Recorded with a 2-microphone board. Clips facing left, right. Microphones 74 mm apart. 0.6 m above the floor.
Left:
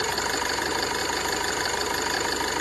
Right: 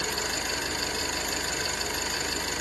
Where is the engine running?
60° left (ahead or behind), 1.2 m.